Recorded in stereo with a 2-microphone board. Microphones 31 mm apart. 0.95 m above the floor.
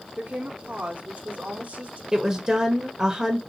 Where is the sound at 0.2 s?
60° right (ahead or behind), 0.8 m.